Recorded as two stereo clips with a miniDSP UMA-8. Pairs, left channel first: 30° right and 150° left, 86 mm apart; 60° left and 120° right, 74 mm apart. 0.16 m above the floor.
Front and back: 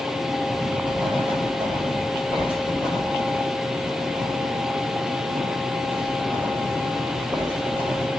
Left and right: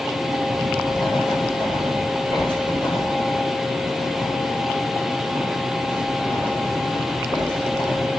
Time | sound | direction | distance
0.5 | writing | 70° left | 4 m